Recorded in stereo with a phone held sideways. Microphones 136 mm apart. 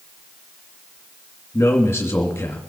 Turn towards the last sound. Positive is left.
turn(degrees=20)  # may be behind; listen again after turning